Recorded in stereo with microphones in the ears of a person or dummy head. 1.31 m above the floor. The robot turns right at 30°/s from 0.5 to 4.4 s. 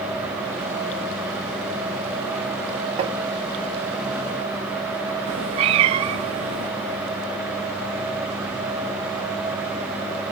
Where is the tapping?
35° right (ahead or behind), 1.0 m; by 3.2 s 30° right (ahead or behind), 1.0 m.